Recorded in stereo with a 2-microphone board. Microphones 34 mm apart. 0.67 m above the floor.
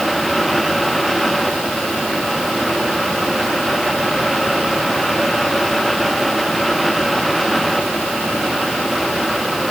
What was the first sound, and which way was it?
Only background noise.